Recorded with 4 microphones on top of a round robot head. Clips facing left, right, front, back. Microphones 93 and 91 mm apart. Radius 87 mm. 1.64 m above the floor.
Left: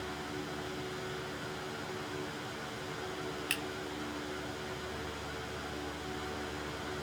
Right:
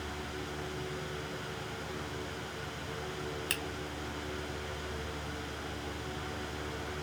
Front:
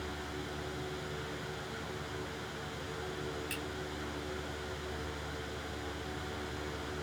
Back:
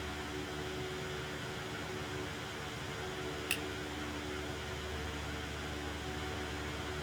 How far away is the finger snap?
About 1.3 m.